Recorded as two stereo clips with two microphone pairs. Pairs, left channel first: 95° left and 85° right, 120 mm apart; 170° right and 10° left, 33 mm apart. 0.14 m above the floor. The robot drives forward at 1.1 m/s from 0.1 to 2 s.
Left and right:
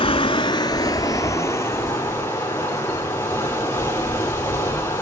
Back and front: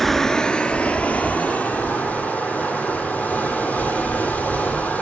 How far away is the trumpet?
No trumpet in this recording.